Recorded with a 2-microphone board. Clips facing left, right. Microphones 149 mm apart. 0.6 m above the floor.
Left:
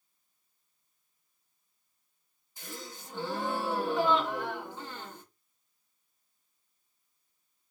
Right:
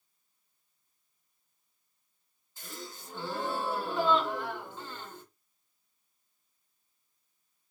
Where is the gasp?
15° left (ahead or behind), 2.5 m.